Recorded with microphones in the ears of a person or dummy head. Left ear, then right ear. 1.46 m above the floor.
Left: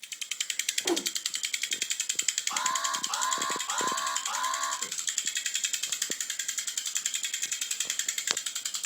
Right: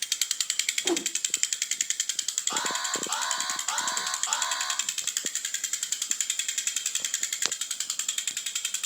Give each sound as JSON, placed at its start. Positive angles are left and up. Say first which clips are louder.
{"t": 0.8, "sound": "a whoosh", "louder": "left 1 dB", "side_deg": 5, "distance_m": 0.7}
{"t": 2.5, "sound": "an alarm", "louder": "right 1 dB", "side_deg": -50, "distance_m": 5.5}